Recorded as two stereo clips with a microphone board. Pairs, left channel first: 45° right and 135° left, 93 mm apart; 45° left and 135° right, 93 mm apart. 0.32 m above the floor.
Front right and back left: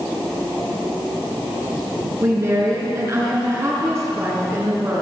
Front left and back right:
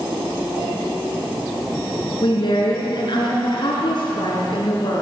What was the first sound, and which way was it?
A woman speaking, 75° left.